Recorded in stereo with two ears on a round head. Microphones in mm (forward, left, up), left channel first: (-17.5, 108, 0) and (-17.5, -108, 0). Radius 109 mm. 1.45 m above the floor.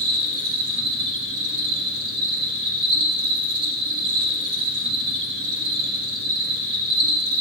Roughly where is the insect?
Right.